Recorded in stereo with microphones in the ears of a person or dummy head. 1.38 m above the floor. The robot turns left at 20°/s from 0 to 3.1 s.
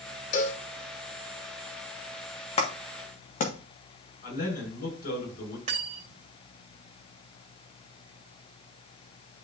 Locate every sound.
0.3 s a cowbell: 50° left (ahead or behind), 1.4 m; by 0.6 s 45° left (ahead or behind), 1.4 m
2.6 s a clap: 35° left (ahead or behind), 1.7 m; by 3.5 s 45° left (ahead or behind), 1.7 m
4.2 s a man speaking: 60° left (ahead or behind), 6 m
5.7 s cutlery clinking: 45° right (ahead or behind), 3 m